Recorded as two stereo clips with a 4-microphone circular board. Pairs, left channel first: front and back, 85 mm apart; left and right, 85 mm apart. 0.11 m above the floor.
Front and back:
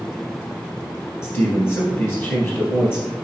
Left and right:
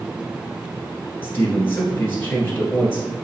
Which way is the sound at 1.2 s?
40° left.